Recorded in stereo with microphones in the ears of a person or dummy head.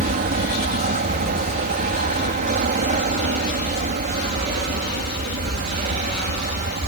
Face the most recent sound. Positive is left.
turn(degrees=-45)  # may be behind; listen again after turning